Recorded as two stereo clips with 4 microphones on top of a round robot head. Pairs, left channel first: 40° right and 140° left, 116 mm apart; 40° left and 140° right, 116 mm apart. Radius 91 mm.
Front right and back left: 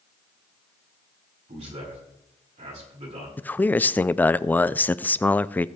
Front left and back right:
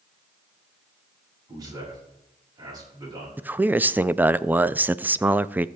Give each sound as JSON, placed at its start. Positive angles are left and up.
{"t": 1.5, "sound": "a man speaking", "azimuth_deg": 160, "distance_m": 6.0}
{"t": 3.4, "sound": "a man speaking", "azimuth_deg": -90, "distance_m": 0.5}